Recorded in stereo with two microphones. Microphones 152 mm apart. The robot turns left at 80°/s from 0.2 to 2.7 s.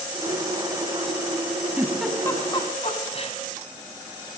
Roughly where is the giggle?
Centre.